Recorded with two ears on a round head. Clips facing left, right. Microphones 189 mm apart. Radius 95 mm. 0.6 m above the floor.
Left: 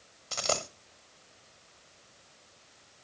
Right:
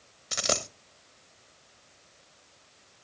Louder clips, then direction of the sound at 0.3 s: Right 1 dB; 20° right (ahead or behind).